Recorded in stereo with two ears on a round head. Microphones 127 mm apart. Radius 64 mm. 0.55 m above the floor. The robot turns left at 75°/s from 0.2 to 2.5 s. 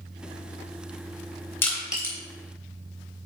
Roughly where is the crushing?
Centre.